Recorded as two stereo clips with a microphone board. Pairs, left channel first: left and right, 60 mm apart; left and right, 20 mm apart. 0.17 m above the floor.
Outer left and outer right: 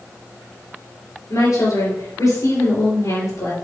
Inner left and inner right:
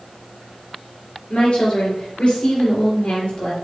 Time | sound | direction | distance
1.3 | a woman speaking | 65° left (ahead or behind) | 3.5 m